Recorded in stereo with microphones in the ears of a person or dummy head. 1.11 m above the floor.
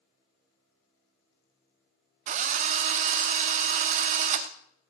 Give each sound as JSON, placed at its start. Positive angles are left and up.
{"t": 2.3, "sound": "a drill", "side_deg": -30, "distance_m": 0.7}